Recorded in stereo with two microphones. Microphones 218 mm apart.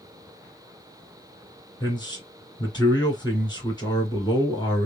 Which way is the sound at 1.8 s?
20° left (ahead or behind).